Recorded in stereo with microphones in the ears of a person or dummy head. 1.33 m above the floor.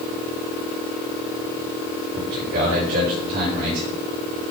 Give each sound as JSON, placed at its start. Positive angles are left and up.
{"t": 2.1, "sound": "a man speaking", "side_deg": -50, "distance_m": 5.5}